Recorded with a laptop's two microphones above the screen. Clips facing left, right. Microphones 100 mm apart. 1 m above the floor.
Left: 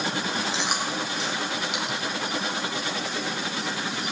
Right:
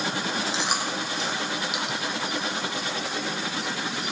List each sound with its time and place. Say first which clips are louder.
0.5 s chewing: even; centre (ahead or behind), 1.5 m